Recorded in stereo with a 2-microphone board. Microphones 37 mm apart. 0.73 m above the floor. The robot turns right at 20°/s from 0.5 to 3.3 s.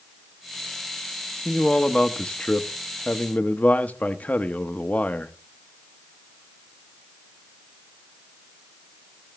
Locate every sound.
1.4 s a man speaking: 20° left, 0.7 m; by 5.3 s 55° left, 0.7 m